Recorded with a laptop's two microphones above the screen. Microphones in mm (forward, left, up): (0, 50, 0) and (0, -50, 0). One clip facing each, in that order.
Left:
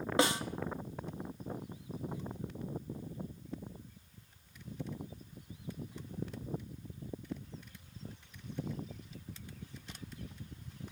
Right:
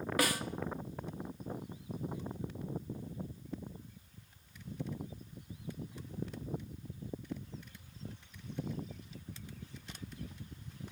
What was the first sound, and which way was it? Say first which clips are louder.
A snare drum: left 4 dB; 25° left (ahead or behind).